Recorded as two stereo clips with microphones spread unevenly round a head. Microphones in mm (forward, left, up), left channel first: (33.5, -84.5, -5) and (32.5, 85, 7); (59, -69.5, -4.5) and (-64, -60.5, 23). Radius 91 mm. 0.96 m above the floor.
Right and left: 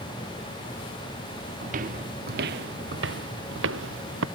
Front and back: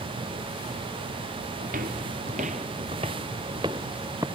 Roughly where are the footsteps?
Behind left.